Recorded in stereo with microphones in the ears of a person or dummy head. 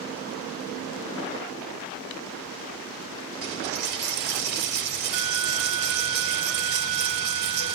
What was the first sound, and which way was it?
A dropped coin, 50° right (ahead or behind).